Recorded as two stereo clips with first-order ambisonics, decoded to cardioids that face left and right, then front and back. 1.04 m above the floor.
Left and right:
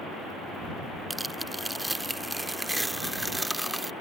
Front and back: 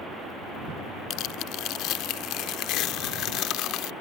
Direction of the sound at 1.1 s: 5° right.